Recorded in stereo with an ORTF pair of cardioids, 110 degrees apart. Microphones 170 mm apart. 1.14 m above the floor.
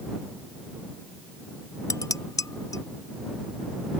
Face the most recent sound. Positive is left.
turn(degrees=20)